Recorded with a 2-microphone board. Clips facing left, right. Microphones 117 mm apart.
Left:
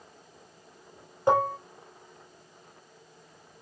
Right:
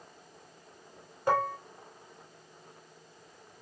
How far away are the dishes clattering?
About 0.8 m.